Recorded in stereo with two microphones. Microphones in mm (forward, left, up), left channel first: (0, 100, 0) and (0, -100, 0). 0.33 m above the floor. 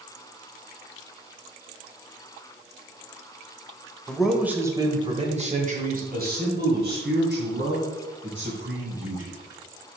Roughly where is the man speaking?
Centre.